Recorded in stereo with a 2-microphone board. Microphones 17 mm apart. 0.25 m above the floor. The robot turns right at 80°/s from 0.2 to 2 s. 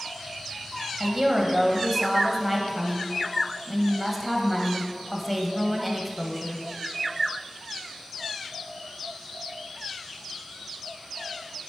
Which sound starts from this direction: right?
A woman speaking, at 1.0 s.